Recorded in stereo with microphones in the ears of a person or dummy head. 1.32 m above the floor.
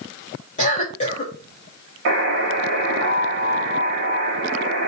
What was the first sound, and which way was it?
A cough, 40° left (ahead or behind).